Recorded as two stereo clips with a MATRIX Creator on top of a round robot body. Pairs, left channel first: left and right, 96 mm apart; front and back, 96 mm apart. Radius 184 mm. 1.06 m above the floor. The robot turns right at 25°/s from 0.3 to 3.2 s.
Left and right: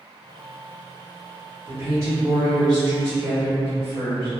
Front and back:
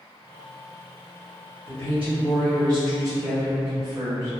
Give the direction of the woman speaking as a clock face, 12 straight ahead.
5 o'clock.